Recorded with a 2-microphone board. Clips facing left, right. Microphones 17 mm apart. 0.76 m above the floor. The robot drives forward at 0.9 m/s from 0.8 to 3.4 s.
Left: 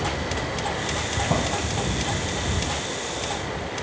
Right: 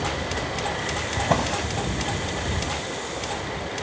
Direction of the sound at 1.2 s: 50° right (ahead or behind).